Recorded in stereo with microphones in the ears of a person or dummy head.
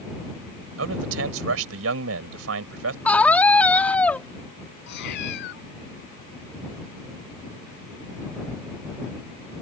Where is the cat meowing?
60° left (ahead or behind).